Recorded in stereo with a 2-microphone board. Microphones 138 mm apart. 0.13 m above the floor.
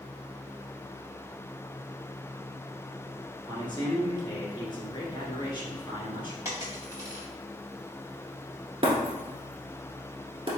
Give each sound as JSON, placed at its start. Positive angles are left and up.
{"t": 3.5, "sound": "a man speaking", "side_deg": 35, "distance_m": 1.3}
{"t": 6.5, "sound": "a dropped coin", "side_deg": -25, "distance_m": 1.9}
{"t": 8.8, "sound": "breaking glass", "side_deg": -40, "distance_m": 1.2}